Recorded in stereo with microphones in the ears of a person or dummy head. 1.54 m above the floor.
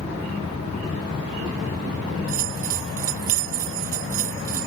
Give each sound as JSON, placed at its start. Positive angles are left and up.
{"t": 2.3, "sound": "a bell", "side_deg": -45}